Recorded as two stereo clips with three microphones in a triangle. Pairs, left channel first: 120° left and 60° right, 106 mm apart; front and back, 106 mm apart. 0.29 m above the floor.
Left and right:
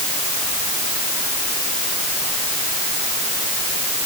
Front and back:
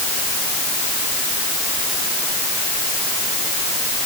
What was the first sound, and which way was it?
Only background noise.